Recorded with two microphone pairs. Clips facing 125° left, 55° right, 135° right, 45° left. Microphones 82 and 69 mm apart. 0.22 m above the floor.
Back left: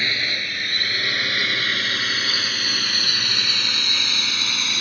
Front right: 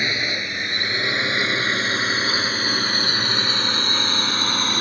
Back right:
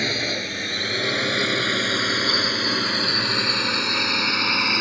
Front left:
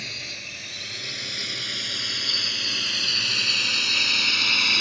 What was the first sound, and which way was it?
A drone, 125° right.